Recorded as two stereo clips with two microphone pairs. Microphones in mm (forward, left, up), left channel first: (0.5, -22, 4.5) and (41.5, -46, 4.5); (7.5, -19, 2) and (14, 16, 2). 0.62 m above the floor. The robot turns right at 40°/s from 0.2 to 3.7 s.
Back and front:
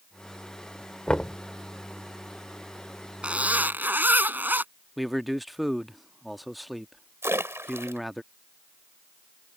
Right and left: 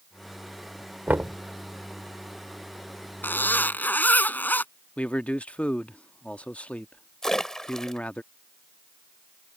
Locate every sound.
1.1 s knocking: 75° left; by 1.4 s 90° left
3.2 s a zipper: 95° right; by 4.7 s 75° right
5.0 s a man speaking: 115° right
7.2 s a splash: 25° right